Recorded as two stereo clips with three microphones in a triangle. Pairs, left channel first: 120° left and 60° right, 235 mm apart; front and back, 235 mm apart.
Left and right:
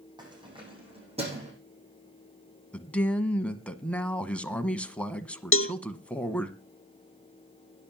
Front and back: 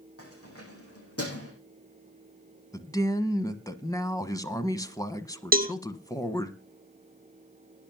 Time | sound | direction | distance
0.2 | keys jangling | 10° left | 5.5 m
2.7 | a man speaking | 45° left | 1.1 m
5.5 | a cowbell | 130° left | 0.5 m